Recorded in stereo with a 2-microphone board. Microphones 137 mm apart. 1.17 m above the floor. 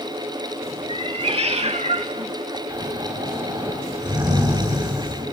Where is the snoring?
25° right (ahead or behind), 9 m.